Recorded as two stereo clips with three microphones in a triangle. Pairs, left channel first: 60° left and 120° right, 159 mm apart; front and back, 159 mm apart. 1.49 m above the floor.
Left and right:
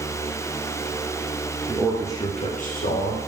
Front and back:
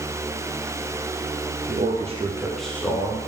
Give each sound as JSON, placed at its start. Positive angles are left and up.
{"t": 1.7, "sound": "a man speaking", "azimuth_deg": 160, "distance_m": 0.6}